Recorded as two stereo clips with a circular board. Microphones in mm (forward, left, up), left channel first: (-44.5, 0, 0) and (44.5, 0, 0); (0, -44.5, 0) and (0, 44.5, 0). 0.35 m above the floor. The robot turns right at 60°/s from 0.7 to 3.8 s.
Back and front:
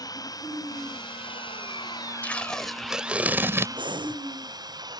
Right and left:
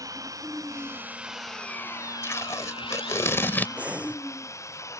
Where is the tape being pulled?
120° right; by 3.7 s 35° right.